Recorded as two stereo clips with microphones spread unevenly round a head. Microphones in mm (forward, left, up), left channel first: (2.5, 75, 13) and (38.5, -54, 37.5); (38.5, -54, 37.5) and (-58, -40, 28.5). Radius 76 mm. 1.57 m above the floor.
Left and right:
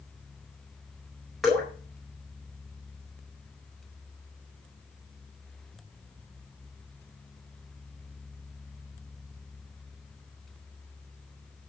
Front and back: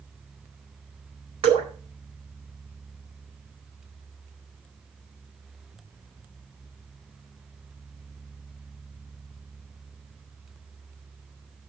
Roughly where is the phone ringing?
I don't hear a phone ringing.